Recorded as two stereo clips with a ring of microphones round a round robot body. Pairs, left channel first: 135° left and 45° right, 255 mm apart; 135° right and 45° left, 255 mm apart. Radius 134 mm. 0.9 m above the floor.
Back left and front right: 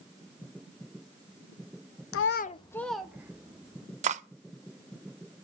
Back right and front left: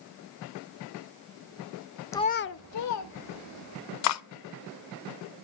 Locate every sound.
2.1 s a child speaking: 145° left, 0.6 m; by 3.9 s 120° right, 2 m
4.0 s cutlery clinking: 110° right, 0.7 m